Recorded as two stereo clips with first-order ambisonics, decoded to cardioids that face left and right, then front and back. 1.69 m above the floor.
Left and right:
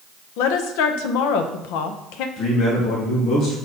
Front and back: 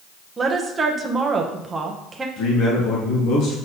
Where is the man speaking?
40° left, 2 m.